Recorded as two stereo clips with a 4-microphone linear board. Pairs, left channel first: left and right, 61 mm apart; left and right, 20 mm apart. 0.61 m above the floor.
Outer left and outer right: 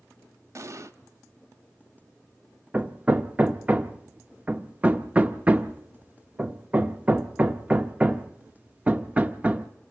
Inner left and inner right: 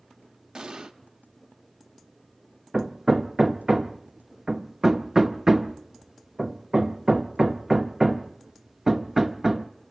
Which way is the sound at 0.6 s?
55° right (ahead or behind).